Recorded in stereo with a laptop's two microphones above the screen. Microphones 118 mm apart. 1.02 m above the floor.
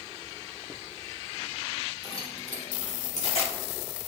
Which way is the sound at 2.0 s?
45° left (ahead or behind).